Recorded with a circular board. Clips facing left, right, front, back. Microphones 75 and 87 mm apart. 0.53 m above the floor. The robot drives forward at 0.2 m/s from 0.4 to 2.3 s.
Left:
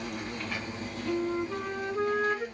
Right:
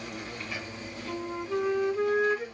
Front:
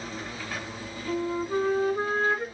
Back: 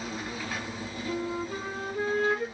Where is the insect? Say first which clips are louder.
Left 3 dB, back 1 dB; 100° left, 1.8 m; by 2.5 s 115° left, 1.9 m.